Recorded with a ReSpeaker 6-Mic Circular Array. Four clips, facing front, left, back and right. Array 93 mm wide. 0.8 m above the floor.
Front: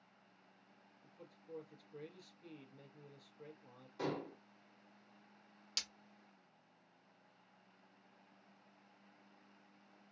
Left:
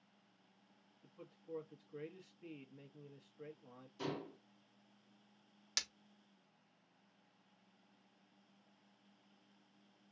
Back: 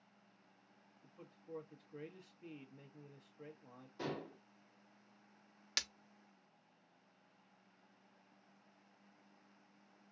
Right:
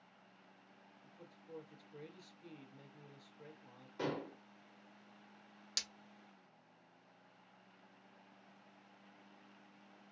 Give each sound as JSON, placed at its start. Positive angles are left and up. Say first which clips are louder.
{"t": 1.0, "sound": "a man speaking", "louder": "left 4 dB, back 1 dB", "azimuth_deg": 135, "distance_m": 0.8}
{"t": 4.0, "sound": "dishes clattering", "louder": "right 3 dB, front 3 dB", "azimuth_deg": -80, "distance_m": 1.6}
{"t": 5.8, "sound": "breaking glass", "louder": "left 4 dB, back 7 dB", "azimuth_deg": 165, "distance_m": 0.6}